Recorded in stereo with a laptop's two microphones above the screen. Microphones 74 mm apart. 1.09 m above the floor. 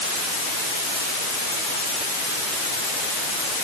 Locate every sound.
Only background noise.